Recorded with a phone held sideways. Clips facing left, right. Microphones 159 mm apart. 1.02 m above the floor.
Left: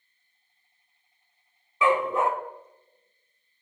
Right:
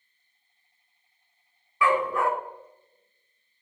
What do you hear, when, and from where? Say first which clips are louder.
1.8 s a dog barking: left 1 dB; 20° left (ahead or behind), 0.9 m